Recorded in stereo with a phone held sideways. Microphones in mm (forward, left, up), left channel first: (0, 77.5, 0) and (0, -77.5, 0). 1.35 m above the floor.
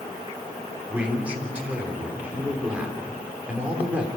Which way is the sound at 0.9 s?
10° right (ahead or behind).